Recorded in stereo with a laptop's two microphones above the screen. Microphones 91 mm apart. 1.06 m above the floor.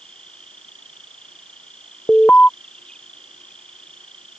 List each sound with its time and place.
0.0 s an insect: 10° left (ahead or behind)
2.1 s an alarm: 20° left (ahead or behind)